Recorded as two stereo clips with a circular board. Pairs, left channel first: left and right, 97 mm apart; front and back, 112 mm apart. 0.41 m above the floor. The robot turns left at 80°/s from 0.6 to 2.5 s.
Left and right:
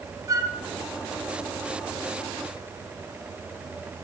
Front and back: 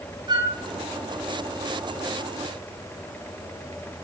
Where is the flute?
140° right, 1.3 m.